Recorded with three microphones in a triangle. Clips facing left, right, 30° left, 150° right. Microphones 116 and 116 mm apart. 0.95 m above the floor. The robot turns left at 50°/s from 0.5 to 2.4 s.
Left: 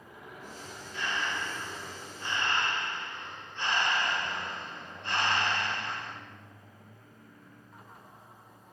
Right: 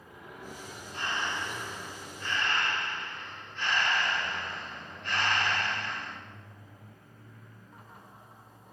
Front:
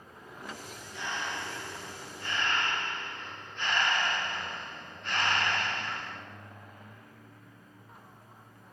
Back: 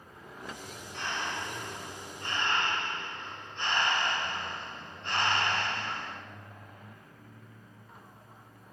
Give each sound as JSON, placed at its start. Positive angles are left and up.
{"t": 0.9, "sound": "breathing", "azimuth_deg": -130, "distance_m": 1.9}